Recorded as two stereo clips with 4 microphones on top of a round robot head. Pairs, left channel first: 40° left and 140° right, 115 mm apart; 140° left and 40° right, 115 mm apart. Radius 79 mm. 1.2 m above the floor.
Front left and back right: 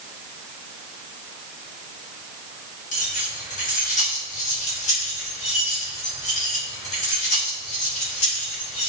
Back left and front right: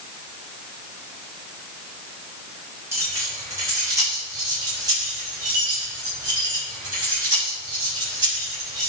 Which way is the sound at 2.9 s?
25° left.